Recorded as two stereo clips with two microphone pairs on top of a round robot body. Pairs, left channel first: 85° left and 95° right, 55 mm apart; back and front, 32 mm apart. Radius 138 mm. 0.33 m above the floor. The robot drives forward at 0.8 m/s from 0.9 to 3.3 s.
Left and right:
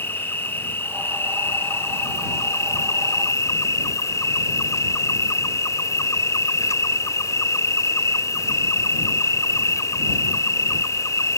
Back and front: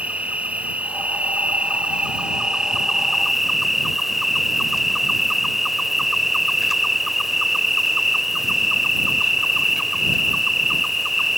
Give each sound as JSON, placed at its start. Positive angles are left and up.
{"t": 0.0, "sound": "an insect", "azimuth_deg": 40}